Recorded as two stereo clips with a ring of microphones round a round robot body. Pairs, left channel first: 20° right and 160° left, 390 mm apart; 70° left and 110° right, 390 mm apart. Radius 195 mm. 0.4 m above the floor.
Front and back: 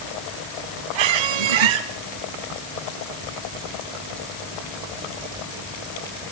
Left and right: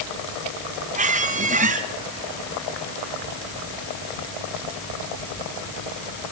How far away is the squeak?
About 1.8 m.